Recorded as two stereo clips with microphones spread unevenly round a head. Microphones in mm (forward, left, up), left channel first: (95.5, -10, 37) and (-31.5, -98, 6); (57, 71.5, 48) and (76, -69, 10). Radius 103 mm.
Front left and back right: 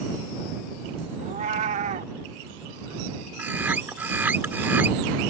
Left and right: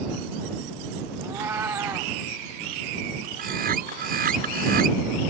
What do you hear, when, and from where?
1.2 s a cat meowing: 175° right
3.4 s a bird: 65° right